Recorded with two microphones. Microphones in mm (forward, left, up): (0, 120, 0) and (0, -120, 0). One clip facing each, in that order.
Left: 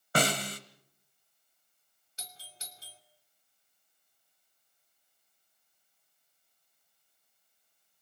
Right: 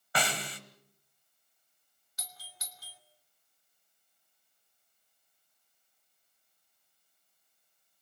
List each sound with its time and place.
0.1 s a snare drum: 45° left (ahead or behind), 1.7 m
2.2 s a doorbell: 30° left (ahead or behind), 2.5 m